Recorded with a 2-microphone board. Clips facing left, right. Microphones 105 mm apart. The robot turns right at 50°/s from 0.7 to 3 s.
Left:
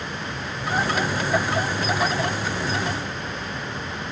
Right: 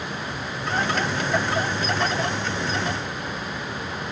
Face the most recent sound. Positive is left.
No sound to turn to.